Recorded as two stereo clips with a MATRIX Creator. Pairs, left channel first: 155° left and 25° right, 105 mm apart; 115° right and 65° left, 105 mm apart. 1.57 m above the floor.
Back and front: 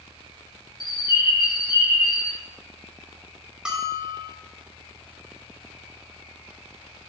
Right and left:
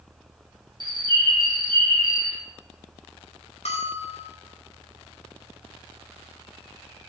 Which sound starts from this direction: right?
A bell, at 3.6 s.